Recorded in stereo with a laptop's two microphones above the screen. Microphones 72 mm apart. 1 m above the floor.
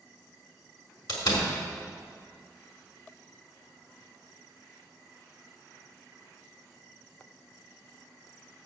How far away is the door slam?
About 1.6 m.